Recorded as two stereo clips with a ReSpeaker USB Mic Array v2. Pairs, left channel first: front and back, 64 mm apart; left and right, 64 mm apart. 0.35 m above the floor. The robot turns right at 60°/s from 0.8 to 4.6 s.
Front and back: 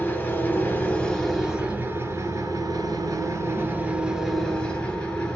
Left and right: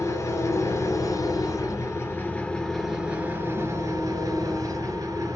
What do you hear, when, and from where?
0.0 s an engine running: 65° left, 1.8 m; by 5.4 s 70° right, 1.8 m